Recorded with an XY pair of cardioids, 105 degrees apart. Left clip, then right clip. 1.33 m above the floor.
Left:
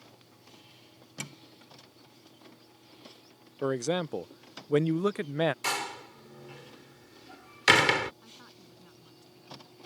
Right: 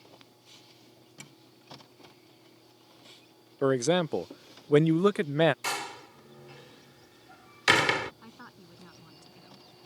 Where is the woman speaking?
45° right.